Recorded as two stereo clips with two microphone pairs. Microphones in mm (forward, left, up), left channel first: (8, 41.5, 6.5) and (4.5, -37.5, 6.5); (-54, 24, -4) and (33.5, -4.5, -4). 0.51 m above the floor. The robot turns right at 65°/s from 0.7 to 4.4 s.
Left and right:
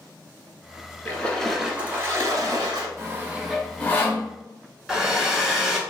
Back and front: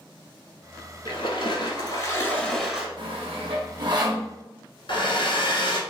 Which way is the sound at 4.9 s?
Straight behind.